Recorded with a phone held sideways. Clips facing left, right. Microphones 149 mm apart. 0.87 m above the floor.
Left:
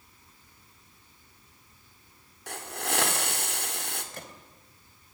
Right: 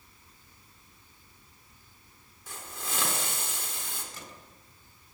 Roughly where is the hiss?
Left.